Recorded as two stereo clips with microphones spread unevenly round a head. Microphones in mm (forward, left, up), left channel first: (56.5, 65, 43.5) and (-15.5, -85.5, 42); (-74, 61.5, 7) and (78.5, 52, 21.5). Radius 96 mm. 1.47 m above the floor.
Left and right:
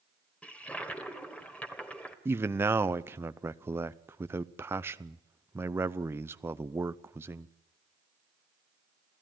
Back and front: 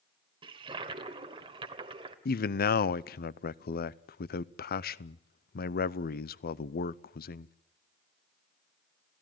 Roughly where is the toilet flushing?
Ahead.